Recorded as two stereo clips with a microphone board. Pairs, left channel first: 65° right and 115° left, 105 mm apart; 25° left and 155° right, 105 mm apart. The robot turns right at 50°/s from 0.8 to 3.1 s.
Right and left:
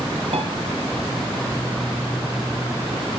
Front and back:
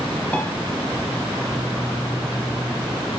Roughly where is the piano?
Left.